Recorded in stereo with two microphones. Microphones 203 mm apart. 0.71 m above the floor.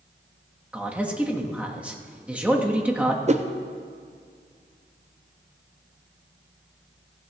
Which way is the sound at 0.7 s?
5° right (ahead or behind).